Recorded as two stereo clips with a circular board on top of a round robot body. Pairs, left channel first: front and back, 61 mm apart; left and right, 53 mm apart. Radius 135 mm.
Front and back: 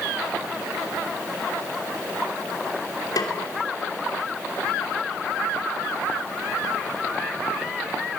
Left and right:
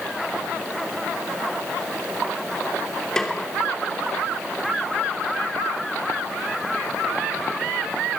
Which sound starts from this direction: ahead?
A snare drum, at 3.2 s.